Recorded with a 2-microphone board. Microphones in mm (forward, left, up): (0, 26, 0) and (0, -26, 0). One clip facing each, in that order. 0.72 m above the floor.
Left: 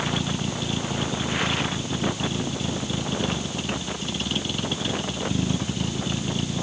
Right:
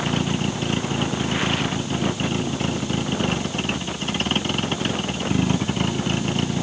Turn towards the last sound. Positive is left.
turn(degrees=-50)  # may be behind; listen again after turning